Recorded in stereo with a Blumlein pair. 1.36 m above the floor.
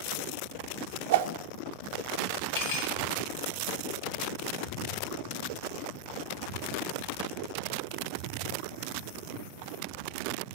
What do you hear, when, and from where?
1.1 s a whoosh: 55° right, 0.5 m
2.5 s cutlery clinking: 60° left, 1.7 m